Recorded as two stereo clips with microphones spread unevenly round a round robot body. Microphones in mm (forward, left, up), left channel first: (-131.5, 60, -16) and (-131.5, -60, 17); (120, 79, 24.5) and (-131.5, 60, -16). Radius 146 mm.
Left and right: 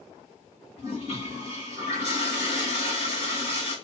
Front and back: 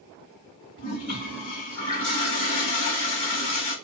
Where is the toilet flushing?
10° left, 1.4 m.